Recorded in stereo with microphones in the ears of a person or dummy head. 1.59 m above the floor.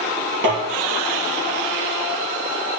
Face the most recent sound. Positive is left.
turn(degrees=-65)  # may be behind; listen again after turning